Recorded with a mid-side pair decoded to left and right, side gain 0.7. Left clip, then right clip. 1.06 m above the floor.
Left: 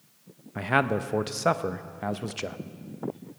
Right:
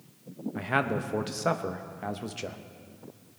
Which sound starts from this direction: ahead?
A man speaking, at 0.6 s.